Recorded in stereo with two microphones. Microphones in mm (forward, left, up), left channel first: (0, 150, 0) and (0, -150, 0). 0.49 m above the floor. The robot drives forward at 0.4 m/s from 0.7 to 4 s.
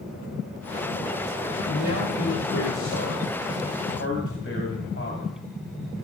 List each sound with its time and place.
1.7 s a man speaking: 55° left (ahead or behind), 1.7 m; by 5.3 s 40° left (ahead or behind), 2 m